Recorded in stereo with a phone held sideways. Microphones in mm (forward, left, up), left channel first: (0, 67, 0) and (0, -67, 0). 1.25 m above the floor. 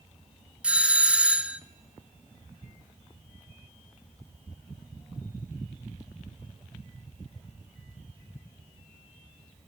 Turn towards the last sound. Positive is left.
turn(degrees=-10)  # may be behind; listen again after turning